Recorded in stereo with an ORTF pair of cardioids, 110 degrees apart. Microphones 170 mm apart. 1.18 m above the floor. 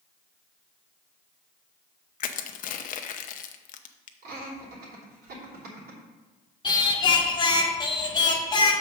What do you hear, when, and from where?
2.2 s crushing: 55° left, 0.7 m
4.2 s laughter: 70° right, 3 m
6.6 s singing: 25° left, 1.3 m